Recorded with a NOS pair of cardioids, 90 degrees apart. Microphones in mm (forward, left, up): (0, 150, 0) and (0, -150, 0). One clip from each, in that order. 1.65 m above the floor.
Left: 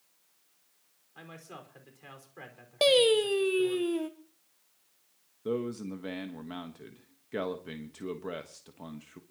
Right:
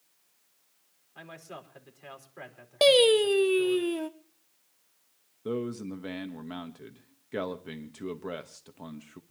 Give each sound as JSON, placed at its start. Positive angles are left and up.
{"t": 1.1, "sound": "a man speaking", "azimuth_deg": -5, "distance_m": 5.0}
{"t": 2.8, "sound": "singing", "azimuth_deg": -15, "distance_m": 1.1}
{"t": 5.5, "sound": "a man speaking", "azimuth_deg": -5, "distance_m": 1.3}